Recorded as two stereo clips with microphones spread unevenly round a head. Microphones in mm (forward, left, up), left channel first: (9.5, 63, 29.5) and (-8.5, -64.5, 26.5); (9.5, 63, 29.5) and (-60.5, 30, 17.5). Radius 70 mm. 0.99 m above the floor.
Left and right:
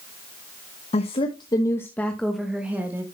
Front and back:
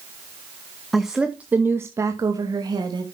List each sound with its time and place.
0.9 s a woman speaking: 120° left, 1.0 m; by 3.0 s 170° right, 1.3 m